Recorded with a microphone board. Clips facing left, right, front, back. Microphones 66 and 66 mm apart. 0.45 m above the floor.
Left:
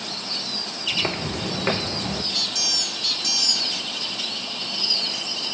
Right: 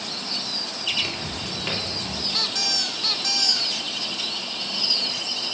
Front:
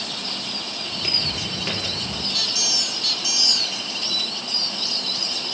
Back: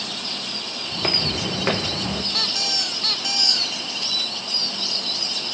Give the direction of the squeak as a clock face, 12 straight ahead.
5 o'clock.